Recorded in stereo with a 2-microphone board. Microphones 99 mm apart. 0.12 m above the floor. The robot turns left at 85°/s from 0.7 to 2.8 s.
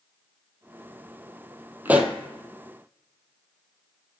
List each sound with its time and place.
1.9 s a pop: 20° right (ahead or behind), 0.6 m; by 2.1 s centre (ahead or behind), 0.6 m